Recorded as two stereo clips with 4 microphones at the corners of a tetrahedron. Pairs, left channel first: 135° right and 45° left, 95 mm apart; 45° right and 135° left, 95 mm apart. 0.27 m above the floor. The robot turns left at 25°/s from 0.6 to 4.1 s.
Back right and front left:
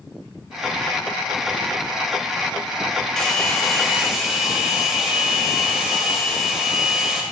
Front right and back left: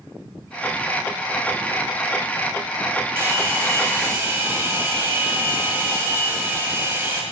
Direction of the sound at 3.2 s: 150° left.